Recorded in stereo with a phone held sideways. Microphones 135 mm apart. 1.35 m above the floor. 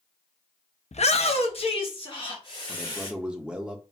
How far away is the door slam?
No door slam in this recording.